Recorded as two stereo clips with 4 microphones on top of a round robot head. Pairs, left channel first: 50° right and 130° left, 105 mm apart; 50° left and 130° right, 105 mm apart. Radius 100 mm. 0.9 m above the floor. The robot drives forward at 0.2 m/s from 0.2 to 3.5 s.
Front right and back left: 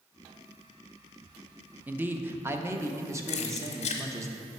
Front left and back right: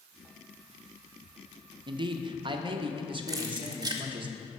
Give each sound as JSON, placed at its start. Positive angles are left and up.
{"t": 1.9, "sound": "a man speaking", "azimuth_deg": -160, "distance_m": 0.5}
{"t": 3.3, "sound": "keys jangling", "azimuth_deg": -70, "distance_m": 0.5}